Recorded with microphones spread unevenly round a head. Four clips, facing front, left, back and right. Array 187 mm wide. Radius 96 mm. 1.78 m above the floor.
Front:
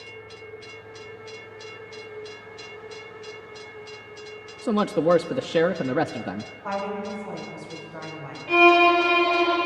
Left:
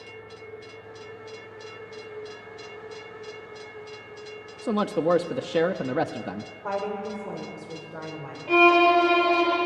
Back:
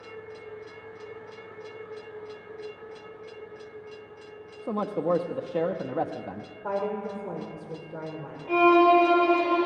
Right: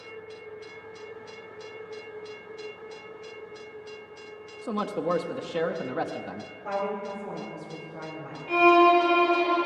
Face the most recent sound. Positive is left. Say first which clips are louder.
# even, front 1 dB
turn(degrees=120)